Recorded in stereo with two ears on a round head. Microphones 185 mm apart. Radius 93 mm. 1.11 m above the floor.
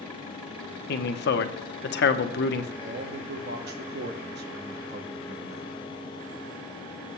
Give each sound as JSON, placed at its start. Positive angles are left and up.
{"t": 0.9, "sound": "a man speaking", "side_deg": 55, "distance_m": 0.9}
{"t": 2.8, "sound": "a man speaking", "side_deg": -55, "distance_m": 0.9}